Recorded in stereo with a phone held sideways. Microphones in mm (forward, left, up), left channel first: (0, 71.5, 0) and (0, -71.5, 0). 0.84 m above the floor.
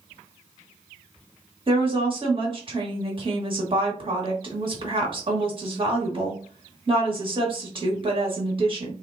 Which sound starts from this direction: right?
A woman speaking, at 1.7 s.